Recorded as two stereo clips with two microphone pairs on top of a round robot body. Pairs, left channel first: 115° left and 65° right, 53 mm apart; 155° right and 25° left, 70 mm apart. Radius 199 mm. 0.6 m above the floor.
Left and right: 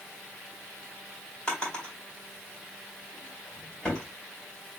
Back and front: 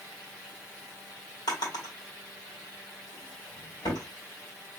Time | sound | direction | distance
1.5 | a drawer | 175° right | 2.5 m